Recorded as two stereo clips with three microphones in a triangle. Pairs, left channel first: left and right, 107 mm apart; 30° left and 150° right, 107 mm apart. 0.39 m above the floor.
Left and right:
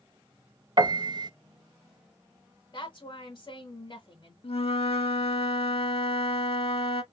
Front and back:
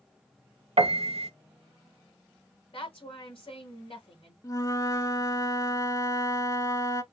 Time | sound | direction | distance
0.8 | a piano | 135° right | 0.6 m
2.7 | a woman speaking | 50° left | 1.7 m
4.4 | a flute | 85° left | 0.6 m